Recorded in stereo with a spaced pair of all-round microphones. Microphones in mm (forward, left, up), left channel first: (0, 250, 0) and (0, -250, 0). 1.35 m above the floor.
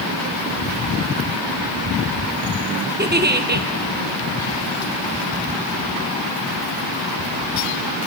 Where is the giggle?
20° right (ahead or behind), 0.9 m.